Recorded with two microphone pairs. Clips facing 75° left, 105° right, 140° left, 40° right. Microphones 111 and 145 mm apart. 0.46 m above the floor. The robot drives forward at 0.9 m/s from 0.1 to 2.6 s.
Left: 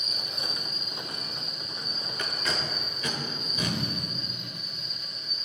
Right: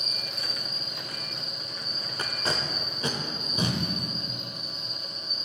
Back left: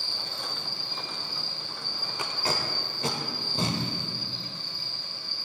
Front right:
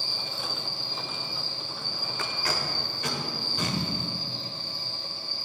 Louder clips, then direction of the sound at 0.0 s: Even, front right 2 dB; 160° right.